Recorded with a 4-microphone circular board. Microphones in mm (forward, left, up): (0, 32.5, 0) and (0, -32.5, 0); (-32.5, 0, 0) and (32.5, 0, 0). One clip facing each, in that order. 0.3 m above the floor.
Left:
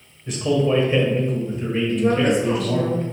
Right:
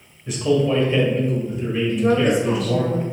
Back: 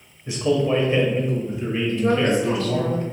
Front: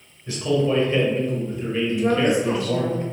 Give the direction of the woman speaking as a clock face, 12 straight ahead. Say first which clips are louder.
Right 1 dB, even; 12 o'clock.